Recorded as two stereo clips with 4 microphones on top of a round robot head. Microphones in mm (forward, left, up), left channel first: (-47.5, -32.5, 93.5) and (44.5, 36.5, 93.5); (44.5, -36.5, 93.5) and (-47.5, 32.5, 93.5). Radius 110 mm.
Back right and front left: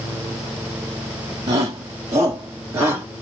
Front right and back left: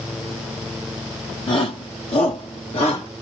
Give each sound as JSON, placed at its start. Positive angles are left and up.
{"t": 1.5, "sound": "a shout", "azimuth_deg": -10, "distance_m": 1.0}